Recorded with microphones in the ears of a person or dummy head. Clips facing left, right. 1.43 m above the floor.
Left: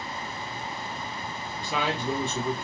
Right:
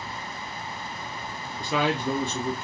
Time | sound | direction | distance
1.6 | a man speaking | 60° right (ahead or behind) | 0.5 m